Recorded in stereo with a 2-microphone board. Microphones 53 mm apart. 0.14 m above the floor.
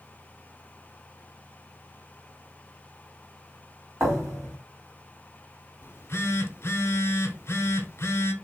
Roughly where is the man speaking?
No man speaking in this recording.